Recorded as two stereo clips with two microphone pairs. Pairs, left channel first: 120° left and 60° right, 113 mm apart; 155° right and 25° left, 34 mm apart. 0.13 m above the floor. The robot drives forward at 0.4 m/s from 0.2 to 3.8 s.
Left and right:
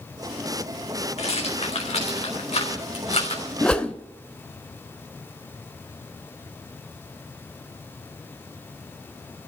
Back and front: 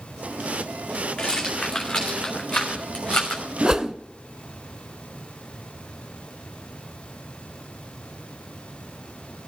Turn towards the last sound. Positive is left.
turn(degrees=60)